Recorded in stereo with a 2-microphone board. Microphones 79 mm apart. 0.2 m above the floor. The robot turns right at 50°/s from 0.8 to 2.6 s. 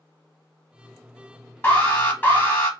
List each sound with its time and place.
1.6 s an alarm: 25° left (ahead or behind), 0.9 m; by 2.7 s 20° left (ahead or behind), 0.9 m